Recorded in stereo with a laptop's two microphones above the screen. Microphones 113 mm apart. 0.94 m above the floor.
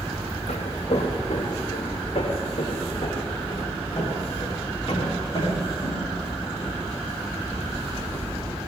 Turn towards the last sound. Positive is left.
turn(degrees=45)  # may be behind; listen again after turning